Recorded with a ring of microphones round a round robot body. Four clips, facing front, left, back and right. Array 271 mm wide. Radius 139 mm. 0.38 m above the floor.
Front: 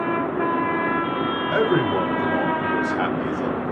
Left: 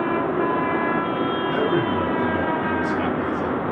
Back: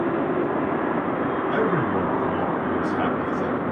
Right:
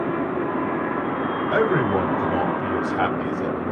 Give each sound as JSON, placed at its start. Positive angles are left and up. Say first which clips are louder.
{"t": 1.5, "sound": "a man speaking", "louder": "right 4 dB, front 4 dB", "azimuth_deg": -60, "distance_m": 3.0}